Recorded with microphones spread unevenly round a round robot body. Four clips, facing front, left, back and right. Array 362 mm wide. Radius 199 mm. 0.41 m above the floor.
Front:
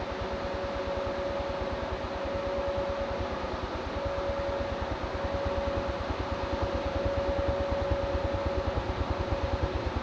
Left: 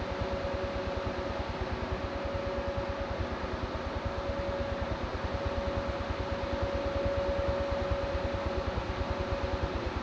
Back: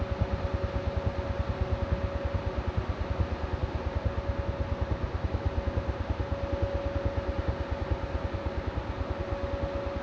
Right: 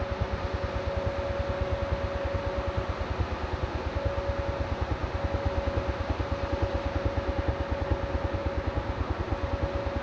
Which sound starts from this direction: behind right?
A helicopter, at 0.0 s.